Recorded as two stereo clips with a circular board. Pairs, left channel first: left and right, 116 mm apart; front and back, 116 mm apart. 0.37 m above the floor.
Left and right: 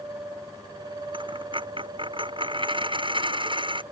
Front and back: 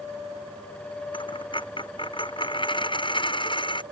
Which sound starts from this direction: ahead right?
A dropped coin, at 1.1 s.